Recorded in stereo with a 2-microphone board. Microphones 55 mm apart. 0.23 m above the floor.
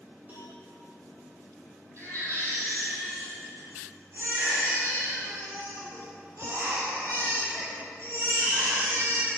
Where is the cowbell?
30° right (ahead or behind), 5.5 m.